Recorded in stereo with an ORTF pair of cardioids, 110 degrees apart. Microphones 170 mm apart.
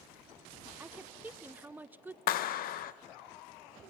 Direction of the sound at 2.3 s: 60° left.